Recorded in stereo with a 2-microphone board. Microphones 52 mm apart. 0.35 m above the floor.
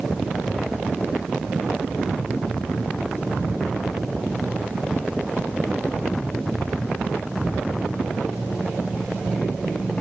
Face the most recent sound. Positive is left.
No sound to turn to.